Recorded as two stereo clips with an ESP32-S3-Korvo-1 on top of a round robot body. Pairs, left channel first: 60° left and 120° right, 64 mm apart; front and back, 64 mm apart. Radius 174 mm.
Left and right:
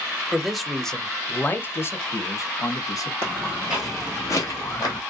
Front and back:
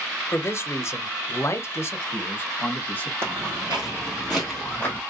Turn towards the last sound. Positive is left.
turn(degrees=70)